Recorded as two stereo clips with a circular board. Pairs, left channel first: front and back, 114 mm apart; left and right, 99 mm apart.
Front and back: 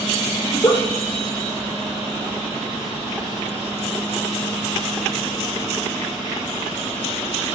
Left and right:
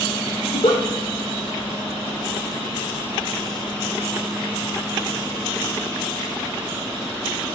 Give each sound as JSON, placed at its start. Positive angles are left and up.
{"t": 0.4, "sound": "a giggle", "azimuth_deg": 55, "distance_m": 4.5}